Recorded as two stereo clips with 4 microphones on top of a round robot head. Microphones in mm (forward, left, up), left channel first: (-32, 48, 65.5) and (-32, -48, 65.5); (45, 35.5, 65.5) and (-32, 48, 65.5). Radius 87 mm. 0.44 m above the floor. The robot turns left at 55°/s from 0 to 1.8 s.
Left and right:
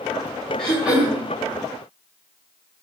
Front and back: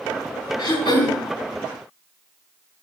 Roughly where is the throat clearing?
Ahead.